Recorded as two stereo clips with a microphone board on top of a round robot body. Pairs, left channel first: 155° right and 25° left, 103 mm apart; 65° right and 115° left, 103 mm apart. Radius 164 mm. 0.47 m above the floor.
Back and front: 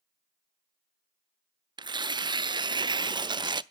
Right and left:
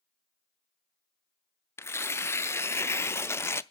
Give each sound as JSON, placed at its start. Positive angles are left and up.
{"t": 1.8, "sound": "tearing paper", "azimuth_deg": -5, "distance_m": 0.5}